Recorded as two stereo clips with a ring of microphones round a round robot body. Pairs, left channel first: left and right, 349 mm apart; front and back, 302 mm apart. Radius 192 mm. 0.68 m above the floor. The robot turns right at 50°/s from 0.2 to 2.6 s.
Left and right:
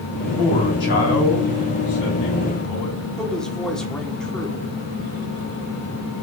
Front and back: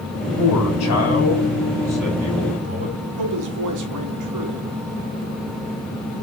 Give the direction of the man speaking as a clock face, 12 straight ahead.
12 o'clock.